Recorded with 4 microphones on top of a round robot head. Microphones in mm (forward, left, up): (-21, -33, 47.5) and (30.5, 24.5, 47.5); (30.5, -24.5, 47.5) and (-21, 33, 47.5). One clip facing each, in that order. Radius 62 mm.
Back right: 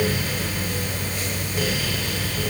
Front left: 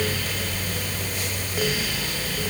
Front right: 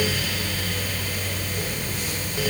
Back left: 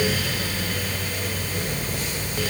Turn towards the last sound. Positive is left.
No sound to turn to.